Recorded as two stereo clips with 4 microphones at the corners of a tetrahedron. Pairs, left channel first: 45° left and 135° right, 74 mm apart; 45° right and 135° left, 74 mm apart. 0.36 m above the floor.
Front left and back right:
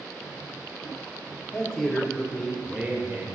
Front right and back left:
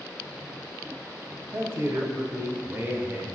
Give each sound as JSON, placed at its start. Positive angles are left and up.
{"t": 1.5, "sound": "a man speaking", "azimuth_deg": 115, "distance_m": 1.4}